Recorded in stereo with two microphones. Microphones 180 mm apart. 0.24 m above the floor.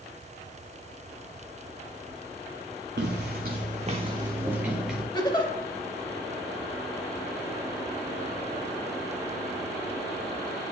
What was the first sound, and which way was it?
Footsteps, 75° right (ahead or behind).